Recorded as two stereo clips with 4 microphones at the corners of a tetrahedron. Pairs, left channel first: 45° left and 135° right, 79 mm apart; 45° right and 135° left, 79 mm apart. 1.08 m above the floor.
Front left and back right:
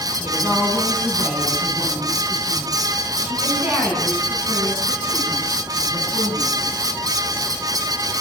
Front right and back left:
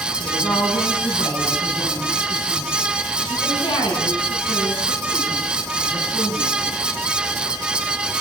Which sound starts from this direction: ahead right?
A woman speaking, at 0.2 s.